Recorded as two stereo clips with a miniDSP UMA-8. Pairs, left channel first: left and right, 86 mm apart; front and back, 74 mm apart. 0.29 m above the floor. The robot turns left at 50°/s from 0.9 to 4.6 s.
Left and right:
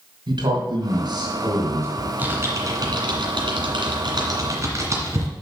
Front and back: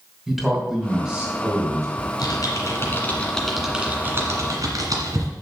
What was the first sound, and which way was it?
A man speaking, 90° right.